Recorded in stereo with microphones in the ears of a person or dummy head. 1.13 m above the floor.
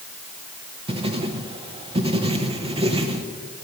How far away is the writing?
About 0.8 m.